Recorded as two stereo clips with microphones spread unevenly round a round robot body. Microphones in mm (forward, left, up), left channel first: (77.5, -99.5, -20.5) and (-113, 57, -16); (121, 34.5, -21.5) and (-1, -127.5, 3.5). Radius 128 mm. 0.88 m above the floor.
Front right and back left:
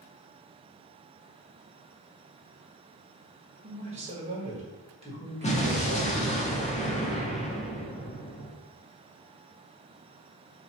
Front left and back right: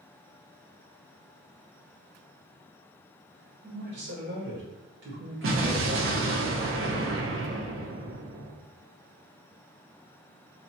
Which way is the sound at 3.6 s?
160° right.